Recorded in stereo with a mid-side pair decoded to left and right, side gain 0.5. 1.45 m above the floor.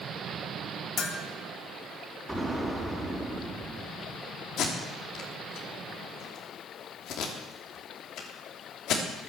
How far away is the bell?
About 2.5 m.